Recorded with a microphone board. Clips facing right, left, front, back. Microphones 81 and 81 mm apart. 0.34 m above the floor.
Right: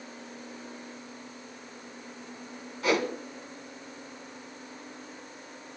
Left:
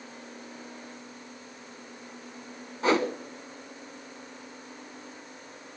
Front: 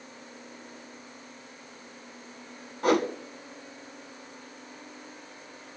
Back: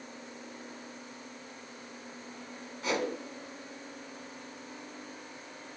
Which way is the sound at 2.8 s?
35° left.